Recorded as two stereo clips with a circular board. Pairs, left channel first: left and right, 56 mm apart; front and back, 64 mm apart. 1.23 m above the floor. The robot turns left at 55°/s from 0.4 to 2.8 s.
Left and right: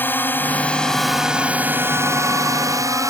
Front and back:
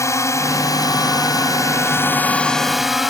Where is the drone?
40° left; by 3.1 s 95° right.